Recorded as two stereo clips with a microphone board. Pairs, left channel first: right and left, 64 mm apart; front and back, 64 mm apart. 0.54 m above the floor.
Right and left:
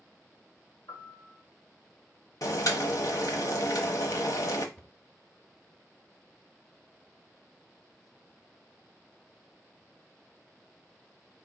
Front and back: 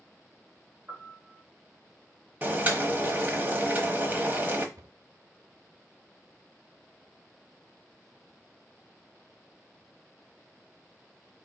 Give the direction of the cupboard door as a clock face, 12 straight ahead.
5 o'clock.